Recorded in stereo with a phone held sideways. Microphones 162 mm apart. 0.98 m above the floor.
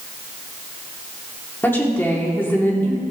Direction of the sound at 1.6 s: 15° left (ahead or behind).